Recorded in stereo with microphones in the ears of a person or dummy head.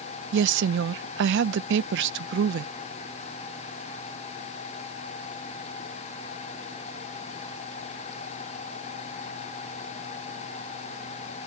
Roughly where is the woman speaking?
Right.